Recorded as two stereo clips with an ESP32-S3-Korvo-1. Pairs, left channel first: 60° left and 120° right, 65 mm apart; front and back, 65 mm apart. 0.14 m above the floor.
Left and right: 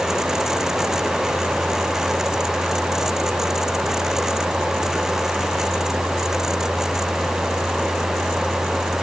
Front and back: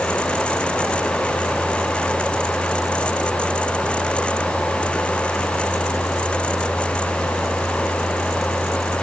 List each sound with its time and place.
Only background noise.